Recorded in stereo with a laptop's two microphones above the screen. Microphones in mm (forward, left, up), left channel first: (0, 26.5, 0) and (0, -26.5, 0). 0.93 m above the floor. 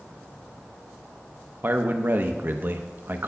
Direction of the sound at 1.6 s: 45° right (ahead or behind).